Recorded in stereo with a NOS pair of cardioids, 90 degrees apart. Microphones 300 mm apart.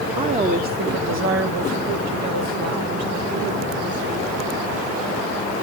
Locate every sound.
0.2 s a woman speaking: 15° right, 1.3 m; by 4.8 s 80° right, 4 m